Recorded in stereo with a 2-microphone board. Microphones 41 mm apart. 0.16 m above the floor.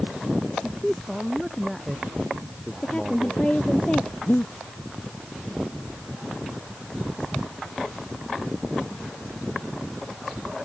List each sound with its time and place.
0.6 s a man speaking: centre (ahead or behind)
2.8 s a woman speaking: 30° left (ahead or behind)
4.3 s breathing: 80° left